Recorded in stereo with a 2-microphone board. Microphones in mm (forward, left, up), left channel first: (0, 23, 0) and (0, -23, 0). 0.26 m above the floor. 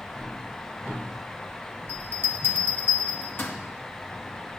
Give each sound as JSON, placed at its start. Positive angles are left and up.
{"t": 1.9, "sound": "a bell", "side_deg": 55, "distance_m": 2.5}